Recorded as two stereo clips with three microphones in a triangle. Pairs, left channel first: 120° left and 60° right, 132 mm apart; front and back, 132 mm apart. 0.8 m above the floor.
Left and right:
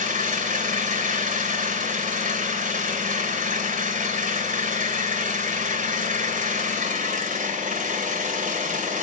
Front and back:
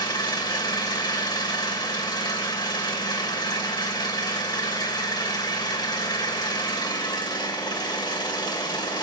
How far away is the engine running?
About 2.5 m.